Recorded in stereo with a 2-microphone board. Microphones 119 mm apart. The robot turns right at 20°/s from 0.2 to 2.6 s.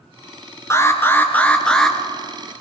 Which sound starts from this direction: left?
An alarm, at 0.7 s.